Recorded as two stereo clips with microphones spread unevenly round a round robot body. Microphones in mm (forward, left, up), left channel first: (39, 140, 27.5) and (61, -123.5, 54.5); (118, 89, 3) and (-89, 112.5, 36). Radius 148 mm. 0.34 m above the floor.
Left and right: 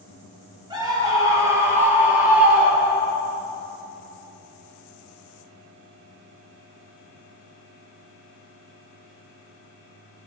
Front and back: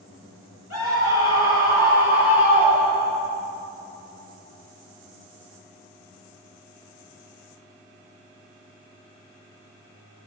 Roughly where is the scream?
Ahead.